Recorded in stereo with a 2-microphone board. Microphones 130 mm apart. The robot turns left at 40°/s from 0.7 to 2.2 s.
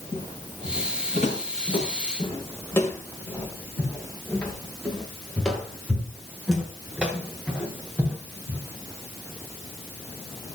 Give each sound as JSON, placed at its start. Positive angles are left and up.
{"t": 0.1, "sound": "footsteps", "side_deg": 85, "distance_m": 7.0}